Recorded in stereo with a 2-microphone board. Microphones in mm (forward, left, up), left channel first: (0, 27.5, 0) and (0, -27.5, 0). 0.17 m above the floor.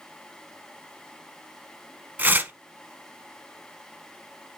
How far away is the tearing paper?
About 0.8 m.